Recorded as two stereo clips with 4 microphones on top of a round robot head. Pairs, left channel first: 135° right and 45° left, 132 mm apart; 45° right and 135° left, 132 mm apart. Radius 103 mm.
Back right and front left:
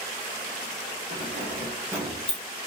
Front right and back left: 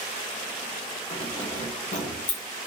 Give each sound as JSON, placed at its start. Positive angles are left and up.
{"t": 1.1, "sound": "keys jangling", "azimuth_deg": 10, "distance_m": 1.3}